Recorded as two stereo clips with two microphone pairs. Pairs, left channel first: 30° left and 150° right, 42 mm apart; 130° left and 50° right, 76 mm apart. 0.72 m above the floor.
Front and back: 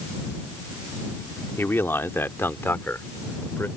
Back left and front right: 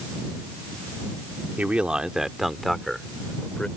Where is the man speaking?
20° left; by 3.7 s 55° left.